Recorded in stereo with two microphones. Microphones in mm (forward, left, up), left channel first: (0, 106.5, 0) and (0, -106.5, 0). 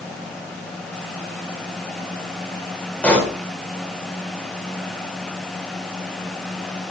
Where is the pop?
5° left (ahead or behind), 5 m.